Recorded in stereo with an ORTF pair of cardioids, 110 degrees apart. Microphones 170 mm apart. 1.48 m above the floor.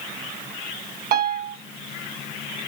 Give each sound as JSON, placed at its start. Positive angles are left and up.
{"t": 1.1, "sound": "a piano", "azimuth_deg": -70, "distance_m": 1.6}